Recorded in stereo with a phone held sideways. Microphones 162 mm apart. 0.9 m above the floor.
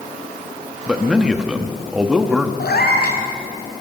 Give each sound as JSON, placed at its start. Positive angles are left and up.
{"t": 0.9, "sound": "a man speaking", "side_deg": -5, "distance_m": 1.2}
{"t": 2.6, "sound": "a cat meowing", "side_deg": 80, "distance_m": 2.5}